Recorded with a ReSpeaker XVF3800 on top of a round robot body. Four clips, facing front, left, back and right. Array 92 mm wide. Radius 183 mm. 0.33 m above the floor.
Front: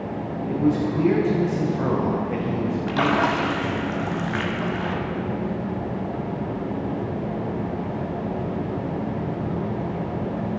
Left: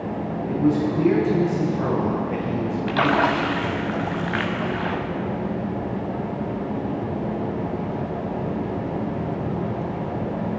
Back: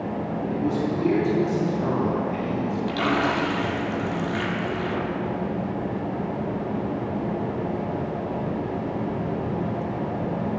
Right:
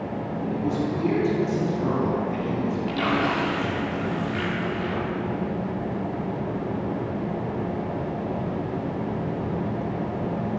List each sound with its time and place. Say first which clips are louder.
0.5 s a man speaking: left 6 dB, front 5 dB; 40° left, 2.5 m
2.9 s a splash: left 6 dB, front 3 dB; 65° left, 1.1 m